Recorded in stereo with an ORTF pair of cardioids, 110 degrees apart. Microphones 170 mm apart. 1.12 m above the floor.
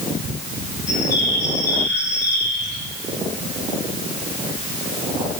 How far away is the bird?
About 3 m.